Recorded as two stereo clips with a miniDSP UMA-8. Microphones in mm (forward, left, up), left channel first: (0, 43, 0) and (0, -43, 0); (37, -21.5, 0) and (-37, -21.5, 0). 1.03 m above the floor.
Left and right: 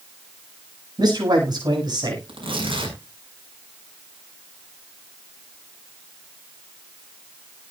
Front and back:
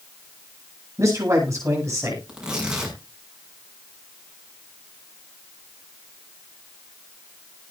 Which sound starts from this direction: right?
Tearing paper, at 2.3 s.